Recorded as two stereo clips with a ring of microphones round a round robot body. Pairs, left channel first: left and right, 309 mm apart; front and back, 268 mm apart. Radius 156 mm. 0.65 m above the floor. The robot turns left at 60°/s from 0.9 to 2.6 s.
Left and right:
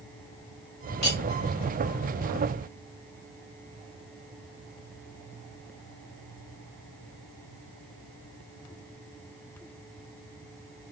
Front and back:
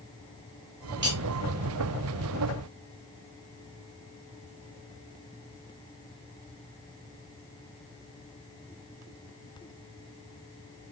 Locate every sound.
1.0 s cutlery clinking: 130° left, 2 m; by 1.2 s 120° left, 2 m